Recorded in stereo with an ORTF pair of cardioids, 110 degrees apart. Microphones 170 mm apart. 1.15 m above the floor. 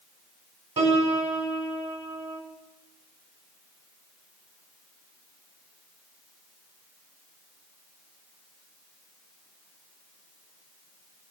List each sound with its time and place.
0.8 s a piano: 40° right, 2.5 m